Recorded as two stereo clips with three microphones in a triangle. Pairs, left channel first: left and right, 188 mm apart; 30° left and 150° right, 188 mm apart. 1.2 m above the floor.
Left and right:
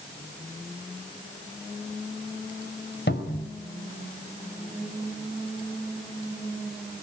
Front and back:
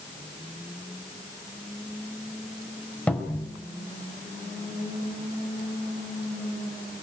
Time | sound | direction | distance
3.1 | a cupboard door | 115° left | 4.5 m